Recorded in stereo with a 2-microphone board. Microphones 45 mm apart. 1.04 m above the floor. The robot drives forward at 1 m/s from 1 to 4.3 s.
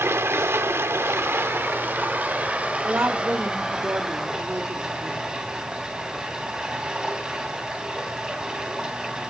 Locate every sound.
0.0 s running water: 75° right (ahead or behind), 1.2 m; by 9.3 s 20° right (ahead or behind), 3.5 m
2.8 s a woman speaking: 65° right (ahead or behind), 2.5 m; by 5.3 s 75° right (ahead or behind), 2.5 m